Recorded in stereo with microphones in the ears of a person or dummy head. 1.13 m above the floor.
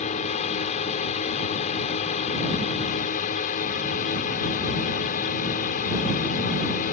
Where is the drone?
40° left (ahead or behind); by 6.9 s 45° left (ahead or behind).